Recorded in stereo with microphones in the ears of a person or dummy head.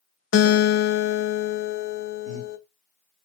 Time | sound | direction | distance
0.3 | a guitar | 60° left (ahead or behind) | 0.8 m
2.2 | breathing | 70° right (ahead or behind) | 3 m